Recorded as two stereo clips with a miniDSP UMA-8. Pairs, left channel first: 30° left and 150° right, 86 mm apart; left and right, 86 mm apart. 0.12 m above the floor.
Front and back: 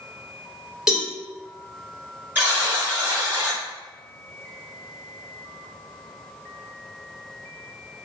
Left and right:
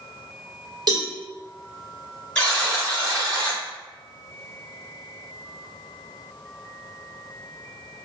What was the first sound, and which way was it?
A cowbell, 65° right.